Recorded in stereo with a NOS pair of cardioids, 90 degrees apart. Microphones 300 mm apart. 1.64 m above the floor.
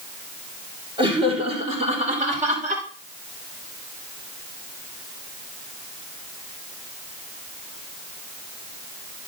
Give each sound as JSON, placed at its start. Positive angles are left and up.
{"t": 1.0, "sound": "laughter", "azimuth_deg": -15, "distance_m": 6.0}